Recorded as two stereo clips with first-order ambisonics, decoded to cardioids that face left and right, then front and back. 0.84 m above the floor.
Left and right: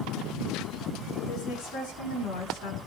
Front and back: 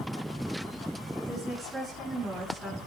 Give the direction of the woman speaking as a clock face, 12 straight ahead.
8 o'clock.